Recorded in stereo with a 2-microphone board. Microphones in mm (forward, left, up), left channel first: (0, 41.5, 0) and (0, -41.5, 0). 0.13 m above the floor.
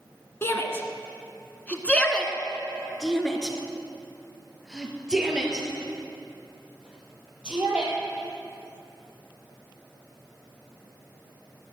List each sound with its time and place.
0.4 s a shout: 30° left (ahead or behind), 1.5 m; by 7.9 s 15° right (ahead or behind), 4 m